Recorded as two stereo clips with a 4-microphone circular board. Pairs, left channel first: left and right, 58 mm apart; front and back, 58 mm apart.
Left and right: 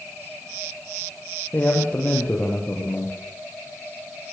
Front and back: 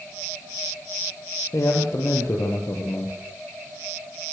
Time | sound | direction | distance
1.5 | a man speaking | 30° left | 5.5 m